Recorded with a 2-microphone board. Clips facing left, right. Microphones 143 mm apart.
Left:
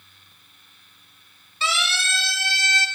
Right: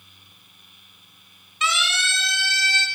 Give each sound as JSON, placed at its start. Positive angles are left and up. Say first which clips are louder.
{"t": 1.6, "sound": "a siren", "louder": "right 1 dB", "side_deg": 35, "distance_m": 4.5}